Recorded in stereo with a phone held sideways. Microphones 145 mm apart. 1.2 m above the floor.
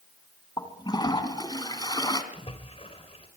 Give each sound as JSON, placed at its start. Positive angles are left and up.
{"t": 0.6, "sound": "a toilet flushing", "side_deg": 30, "distance_m": 2.5}
{"t": 2.3, "sound": "a splash", "side_deg": 45, "distance_m": 3.5}